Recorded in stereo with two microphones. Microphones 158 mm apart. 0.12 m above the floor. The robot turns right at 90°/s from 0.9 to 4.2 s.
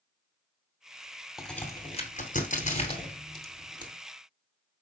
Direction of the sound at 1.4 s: Centre (ahead or behind).